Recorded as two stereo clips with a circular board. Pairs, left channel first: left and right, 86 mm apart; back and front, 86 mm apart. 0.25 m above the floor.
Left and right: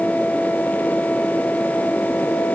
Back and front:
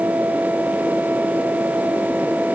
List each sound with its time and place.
Only background noise.